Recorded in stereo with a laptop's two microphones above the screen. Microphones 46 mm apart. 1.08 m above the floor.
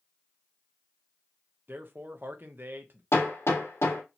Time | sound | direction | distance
1.7 | a man speaking | 45° right (ahead or behind) | 0.7 m
3.1 | hammering | 65° left (ahead or behind) | 1.7 m